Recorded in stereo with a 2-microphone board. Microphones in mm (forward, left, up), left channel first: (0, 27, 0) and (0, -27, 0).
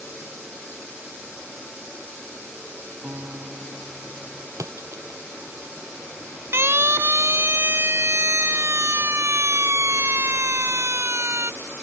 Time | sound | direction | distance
3.0 | a guitar | 50° right (ahead or behind) | ?
4.6 | a splash | 80° right | ?
6.5 | a siren | 55° right (ahead or behind) | ?